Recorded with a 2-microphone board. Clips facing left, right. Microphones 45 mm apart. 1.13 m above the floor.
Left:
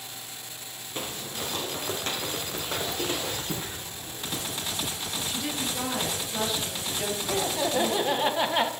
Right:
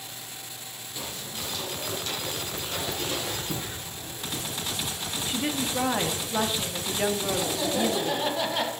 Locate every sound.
0.9 s footsteps: 45° left (ahead or behind), 1.6 m; by 3.4 s 40° left (ahead or behind), 4.5 m
3.5 s footsteps: 25° left (ahead or behind), 5 m; by 5.1 s 50° left (ahead or behind), 3.5 m
5.3 s a woman speaking: 35° right (ahead or behind), 1.8 m
7.3 s laughter: 20° left (ahead or behind), 1.6 m